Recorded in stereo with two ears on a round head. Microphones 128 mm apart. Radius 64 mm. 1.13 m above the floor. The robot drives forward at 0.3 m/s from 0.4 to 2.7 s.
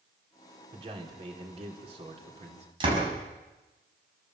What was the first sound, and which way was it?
A man speaking, 40° right (ahead or behind).